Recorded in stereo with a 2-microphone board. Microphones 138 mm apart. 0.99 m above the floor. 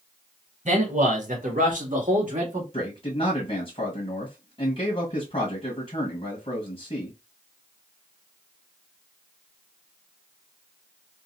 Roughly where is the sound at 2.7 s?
Left.